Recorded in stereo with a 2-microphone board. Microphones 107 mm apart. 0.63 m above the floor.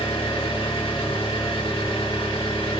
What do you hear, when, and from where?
0.0 s an engine running: 50° left (ahead or behind), 0.8 m